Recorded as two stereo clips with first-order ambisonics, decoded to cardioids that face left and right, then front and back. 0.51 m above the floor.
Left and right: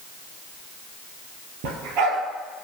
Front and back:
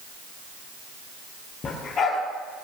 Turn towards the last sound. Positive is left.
turn(degrees=-60)